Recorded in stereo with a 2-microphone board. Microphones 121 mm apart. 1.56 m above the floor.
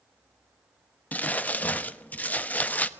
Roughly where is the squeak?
No squeak in this recording.